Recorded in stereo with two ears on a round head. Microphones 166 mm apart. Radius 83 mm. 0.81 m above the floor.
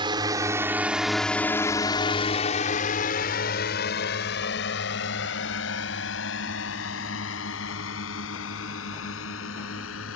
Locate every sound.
0.0 s a drone: 25° right (ahead or behind); by 10.2 s 85° left